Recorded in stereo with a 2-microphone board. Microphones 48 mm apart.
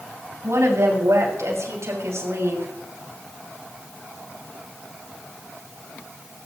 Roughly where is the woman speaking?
Right.